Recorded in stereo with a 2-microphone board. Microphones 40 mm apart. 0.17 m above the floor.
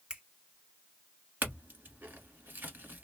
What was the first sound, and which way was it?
A finger snap, 25° right (ahead or behind).